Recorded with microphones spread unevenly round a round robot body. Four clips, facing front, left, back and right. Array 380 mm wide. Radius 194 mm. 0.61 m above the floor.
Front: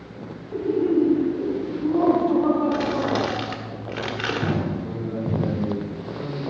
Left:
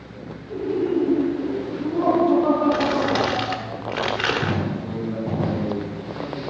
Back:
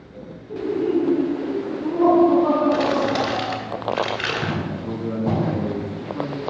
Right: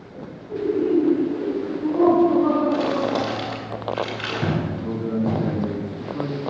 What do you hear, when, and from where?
0.5 s laughter: 55° right, 6 m
2.7 s crumpling: 85° left, 1.9 m
4.7 s a man speaking: 115° right, 5 m